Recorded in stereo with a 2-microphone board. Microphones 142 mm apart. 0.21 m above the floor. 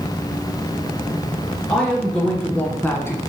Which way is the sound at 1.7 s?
5° left (ahead or behind).